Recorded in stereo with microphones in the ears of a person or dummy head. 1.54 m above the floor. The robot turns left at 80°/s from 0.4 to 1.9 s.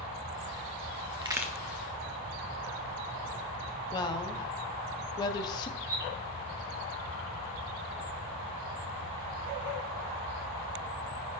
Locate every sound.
1.2 s a crack: 30° right (ahead or behind), 0.6 m; by 1.5 s 5° right (ahead or behind), 0.6 m
3.9 s a woman speaking: 25° left (ahead or behind), 0.6 m
5.8 s a bird: 60° right (ahead or behind), 2.5 m